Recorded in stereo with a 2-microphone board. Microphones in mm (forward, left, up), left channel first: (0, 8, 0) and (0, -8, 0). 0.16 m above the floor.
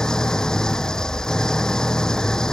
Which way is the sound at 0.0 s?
50° left (ahead or behind).